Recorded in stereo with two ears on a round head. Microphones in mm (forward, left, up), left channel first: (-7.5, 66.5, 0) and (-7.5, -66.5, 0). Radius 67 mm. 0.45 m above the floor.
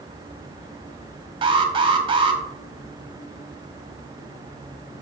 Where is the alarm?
35° right (ahead or behind), 1.5 m.